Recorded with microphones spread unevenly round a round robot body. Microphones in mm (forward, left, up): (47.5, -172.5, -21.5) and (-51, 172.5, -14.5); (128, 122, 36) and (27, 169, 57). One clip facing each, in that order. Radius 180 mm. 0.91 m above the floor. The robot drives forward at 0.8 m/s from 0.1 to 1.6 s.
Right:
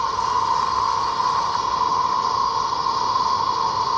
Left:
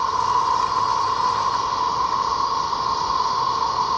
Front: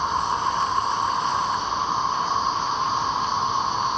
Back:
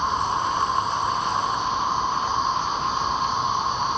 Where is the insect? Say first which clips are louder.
Left 1 dB, even; 100° right, 3.5 m; by 4.0 s 115° right, 4 m.